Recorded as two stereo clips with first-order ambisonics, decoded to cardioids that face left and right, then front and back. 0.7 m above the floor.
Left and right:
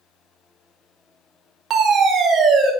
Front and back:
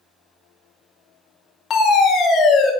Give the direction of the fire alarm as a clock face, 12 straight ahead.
2 o'clock.